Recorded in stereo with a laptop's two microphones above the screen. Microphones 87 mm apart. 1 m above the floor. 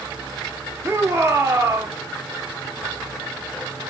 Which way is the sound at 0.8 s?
30° right (ahead or behind).